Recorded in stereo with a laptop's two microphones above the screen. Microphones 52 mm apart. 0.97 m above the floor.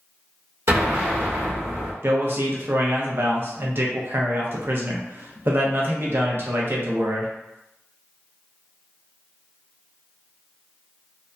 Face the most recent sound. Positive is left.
turn(degrees=-50)  # may be behind; listen again after turning